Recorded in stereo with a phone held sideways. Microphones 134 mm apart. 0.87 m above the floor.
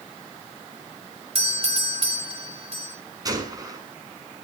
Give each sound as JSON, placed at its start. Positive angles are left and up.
{"t": 1.4, "sound": "a doorbell", "side_deg": -45, "distance_m": 2.5}
{"t": 3.2, "sound": "a gunshot", "side_deg": -30, "distance_m": 5.0}